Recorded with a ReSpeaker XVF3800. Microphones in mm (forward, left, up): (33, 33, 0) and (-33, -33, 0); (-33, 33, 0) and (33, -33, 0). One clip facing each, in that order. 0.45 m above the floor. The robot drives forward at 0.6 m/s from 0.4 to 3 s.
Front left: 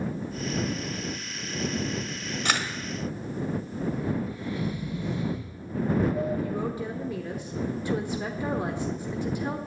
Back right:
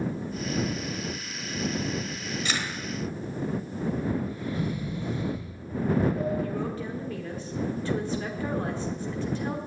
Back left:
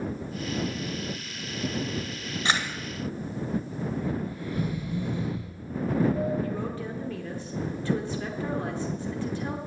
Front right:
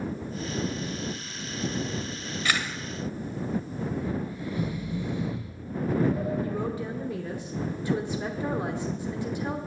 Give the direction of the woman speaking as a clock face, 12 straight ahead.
12 o'clock.